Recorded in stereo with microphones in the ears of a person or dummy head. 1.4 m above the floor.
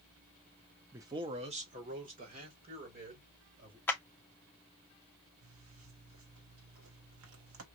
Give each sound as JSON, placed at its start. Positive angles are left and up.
{"t": 0.9, "sound": "a man speaking", "side_deg": -10, "distance_m": 0.5}
{"t": 3.9, "sound": "a clap", "side_deg": 10, "distance_m": 0.6}
{"t": 5.4, "sound": "a zipper", "side_deg": -70, "distance_m": 1.5}